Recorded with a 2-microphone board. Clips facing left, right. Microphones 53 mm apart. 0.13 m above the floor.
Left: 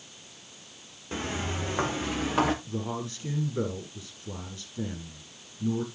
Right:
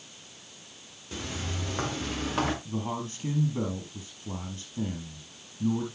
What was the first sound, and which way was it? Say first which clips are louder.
Footsteps: left 4 dB; 30° left (ahead or behind).